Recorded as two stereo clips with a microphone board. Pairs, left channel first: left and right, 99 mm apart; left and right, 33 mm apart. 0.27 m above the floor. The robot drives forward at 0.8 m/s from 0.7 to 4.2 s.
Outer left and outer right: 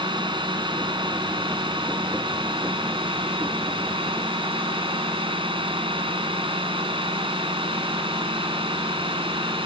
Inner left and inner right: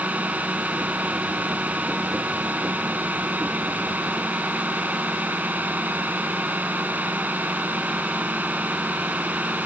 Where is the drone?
55° right (ahead or behind); by 9.7 s 60° right (ahead or behind).